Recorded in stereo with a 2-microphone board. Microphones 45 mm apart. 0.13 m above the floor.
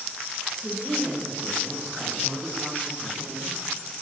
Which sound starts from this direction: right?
A woman speaking, at 0.6 s.